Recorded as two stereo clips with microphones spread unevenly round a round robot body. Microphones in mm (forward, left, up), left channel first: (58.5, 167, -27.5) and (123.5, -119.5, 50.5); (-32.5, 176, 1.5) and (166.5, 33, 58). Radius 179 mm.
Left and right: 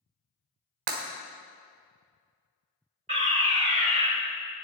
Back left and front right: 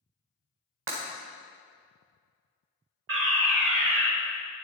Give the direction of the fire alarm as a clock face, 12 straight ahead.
12 o'clock.